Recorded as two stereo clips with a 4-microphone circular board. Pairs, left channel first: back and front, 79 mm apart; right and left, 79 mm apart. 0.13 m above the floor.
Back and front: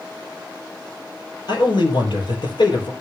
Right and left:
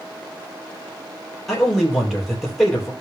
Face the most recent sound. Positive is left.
turn(degrees=180)